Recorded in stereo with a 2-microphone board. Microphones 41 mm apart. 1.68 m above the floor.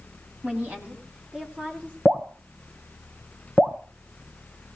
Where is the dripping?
50° right (ahead or behind), 1.6 m.